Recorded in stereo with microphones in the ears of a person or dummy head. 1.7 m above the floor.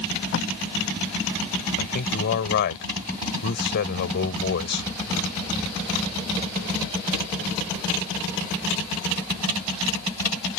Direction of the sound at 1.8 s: 55° left (ahead or behind).